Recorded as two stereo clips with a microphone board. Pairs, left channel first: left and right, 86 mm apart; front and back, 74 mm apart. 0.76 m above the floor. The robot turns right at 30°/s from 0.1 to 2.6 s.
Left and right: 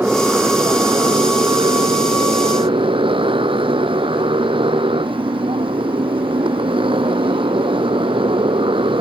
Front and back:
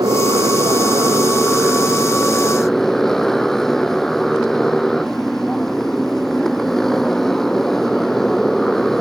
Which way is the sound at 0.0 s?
160° right.